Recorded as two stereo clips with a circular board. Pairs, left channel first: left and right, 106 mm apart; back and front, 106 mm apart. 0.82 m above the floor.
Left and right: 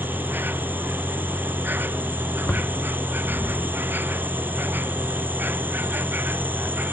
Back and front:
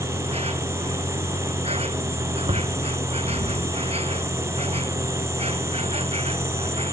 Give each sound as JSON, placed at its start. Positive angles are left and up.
{"t": 0.0, "sound": "an insect", "azimuth_deg": -20}
{"t": 2.5, "sound": "knocking", "azimuth_deg": 15}